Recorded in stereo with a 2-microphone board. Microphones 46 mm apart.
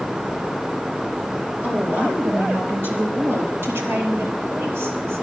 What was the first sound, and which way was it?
A woman speaking, 40° right (ahead or behind).